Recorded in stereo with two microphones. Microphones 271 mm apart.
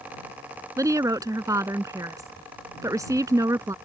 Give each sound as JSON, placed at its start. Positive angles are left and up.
{"t": 0.8, "sound": "a woman speaking", "side_deg": -10}